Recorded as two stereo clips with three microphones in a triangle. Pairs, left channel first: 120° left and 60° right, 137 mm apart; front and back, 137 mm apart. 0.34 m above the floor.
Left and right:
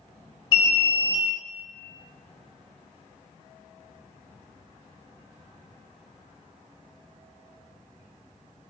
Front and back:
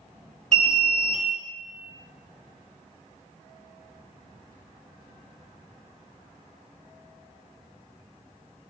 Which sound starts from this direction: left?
An alarm, at 0.5 s.